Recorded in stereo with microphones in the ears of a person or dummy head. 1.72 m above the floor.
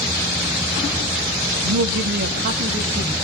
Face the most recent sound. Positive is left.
turn(degrees=-20)  # may be behind; listen again after turning